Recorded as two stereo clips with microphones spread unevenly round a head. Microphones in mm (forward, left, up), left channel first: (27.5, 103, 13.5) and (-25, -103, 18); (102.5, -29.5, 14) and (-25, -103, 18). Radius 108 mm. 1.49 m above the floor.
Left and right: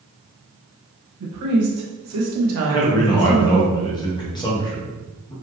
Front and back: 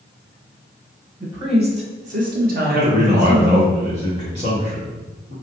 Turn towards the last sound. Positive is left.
turn(degrees=145)